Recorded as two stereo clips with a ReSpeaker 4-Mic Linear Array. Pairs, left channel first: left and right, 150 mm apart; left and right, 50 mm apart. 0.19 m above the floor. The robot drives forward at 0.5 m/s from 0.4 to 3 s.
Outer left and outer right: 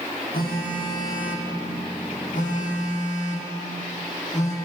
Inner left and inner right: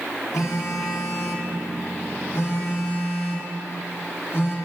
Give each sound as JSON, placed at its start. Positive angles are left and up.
{"t": 0.3, "sound": "a phone buzzing", "side_deg": 85, "distance_m": 1.9}